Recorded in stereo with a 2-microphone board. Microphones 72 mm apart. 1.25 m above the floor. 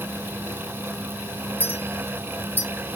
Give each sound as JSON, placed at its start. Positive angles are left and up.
{"t": 1.6, "sound": "a clink", "side_deg": 25, "distance_m": 4.5}